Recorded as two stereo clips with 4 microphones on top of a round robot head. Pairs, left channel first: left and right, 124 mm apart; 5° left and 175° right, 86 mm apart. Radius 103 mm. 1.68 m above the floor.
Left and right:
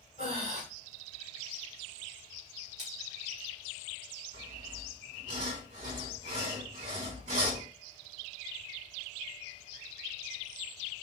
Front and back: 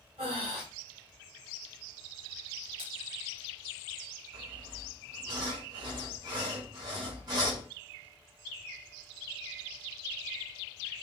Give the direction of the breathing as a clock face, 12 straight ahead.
5 o'clock.